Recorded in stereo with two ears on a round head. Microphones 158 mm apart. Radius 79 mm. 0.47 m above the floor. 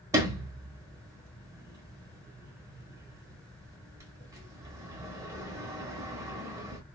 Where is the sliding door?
15° right (ahead or behind), 1.3 m.